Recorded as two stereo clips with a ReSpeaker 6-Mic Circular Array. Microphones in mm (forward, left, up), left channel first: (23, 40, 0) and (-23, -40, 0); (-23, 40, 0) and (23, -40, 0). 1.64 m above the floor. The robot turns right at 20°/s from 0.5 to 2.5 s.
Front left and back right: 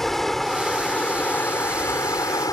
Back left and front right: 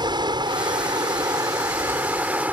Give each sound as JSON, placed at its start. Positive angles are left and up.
{"t": 0.0, "sound": "running water", "azimuth_deg": -30}